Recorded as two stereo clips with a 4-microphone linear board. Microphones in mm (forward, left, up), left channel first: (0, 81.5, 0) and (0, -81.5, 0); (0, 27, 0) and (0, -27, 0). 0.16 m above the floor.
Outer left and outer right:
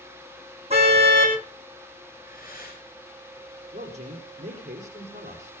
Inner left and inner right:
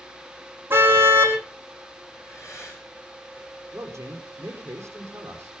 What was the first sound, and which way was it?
A car horn, 40° right (ahead or behind).